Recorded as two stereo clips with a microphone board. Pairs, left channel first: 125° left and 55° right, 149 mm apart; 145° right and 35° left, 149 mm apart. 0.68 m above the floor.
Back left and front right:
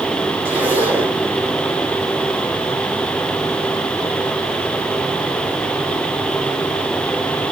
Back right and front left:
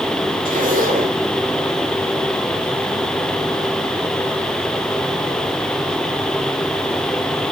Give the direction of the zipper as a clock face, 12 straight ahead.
11 o'clock.